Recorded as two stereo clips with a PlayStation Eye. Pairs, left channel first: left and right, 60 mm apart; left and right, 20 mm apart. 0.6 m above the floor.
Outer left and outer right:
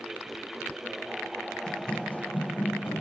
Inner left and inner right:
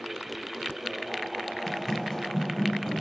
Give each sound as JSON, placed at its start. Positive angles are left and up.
{"t": 1.7, "sound": "running footsteps", "side_deg": 15, "distance_m": 1.2}